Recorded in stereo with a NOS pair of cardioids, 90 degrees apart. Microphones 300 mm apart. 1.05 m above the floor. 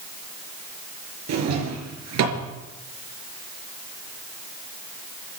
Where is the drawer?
65° right, 4 m.